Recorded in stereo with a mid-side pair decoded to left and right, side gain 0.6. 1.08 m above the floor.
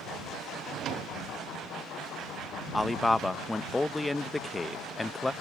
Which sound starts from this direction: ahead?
A man speaking, at 2.7 s.